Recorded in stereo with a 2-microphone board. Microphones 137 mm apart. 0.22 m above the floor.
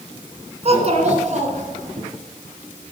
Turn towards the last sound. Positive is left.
turn(degrees=-65)  # may be behind; listen again after turning